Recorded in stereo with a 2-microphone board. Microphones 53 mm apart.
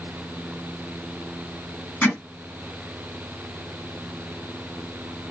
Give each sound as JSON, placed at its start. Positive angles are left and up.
{"t": 2.0, "sound": "hammering", "side_deg": 35, "distance_m": 3.0}